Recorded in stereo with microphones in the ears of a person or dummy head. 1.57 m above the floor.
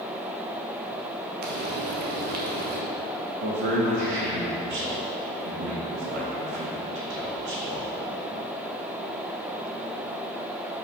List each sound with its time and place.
1.4 s frying: 50° right (ahead or behind), 1.1 m
3.4 s a man speaking: 70° right (ahead or behind), 2.5 m